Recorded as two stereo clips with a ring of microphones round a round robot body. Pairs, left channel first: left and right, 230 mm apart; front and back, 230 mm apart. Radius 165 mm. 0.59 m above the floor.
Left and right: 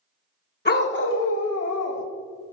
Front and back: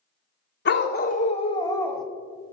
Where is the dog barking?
45° left, 1.5 m; by 2.1 s 90° left, 1.3 m.